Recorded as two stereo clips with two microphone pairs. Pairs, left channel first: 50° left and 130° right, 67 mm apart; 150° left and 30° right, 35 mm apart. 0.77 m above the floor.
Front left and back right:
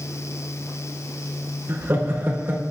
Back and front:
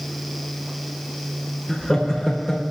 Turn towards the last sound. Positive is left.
turn(degrees=-145)